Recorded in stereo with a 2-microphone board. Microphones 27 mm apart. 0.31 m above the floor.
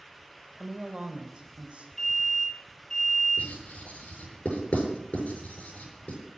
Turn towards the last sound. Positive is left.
turn(degrees=55)  # may be behind; listen again after turning